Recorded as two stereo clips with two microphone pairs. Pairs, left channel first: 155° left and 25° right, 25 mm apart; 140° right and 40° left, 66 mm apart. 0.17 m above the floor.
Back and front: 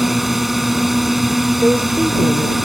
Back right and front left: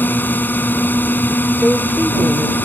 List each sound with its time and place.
0.0 s a drone: 110° right
1.6 s a woman speaking: 25° right